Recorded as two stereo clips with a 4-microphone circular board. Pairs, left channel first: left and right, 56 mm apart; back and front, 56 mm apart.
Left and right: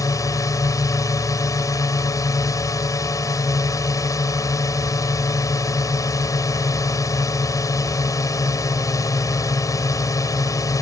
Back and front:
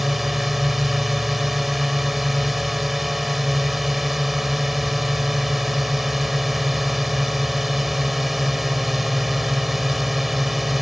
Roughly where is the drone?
Left.